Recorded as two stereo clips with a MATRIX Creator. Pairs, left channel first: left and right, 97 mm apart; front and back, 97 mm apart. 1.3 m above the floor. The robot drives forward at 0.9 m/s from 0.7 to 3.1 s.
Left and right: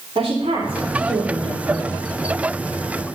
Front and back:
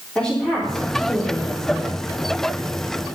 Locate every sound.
0.1 s a woman speaking: 75° right, 4 m; by 1.9 s 95° right, 4 m